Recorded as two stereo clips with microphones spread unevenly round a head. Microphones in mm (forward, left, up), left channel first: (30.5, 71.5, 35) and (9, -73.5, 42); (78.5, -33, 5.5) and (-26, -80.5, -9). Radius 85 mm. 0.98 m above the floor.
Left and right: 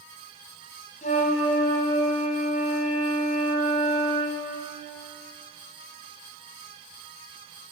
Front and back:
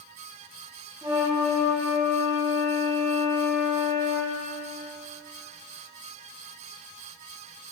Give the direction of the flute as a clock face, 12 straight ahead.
8 o'clock.